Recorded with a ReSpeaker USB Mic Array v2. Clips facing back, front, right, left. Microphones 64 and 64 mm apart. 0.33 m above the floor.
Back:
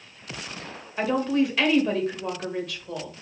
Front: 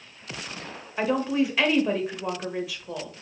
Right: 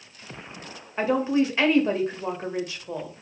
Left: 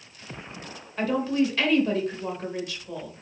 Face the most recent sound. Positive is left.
turn(degrees=-75)